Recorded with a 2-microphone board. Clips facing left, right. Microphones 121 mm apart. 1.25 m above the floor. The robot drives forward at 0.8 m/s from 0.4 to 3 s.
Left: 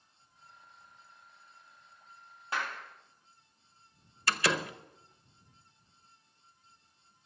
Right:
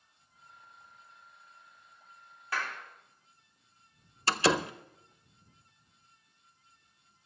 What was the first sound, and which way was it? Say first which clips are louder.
A clap: even; 20° left (ahead or behind).